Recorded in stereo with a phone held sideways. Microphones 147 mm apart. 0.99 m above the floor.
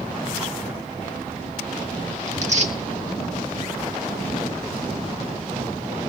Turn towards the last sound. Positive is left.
turn(degrees=-50)  # may be behind; listen again after turning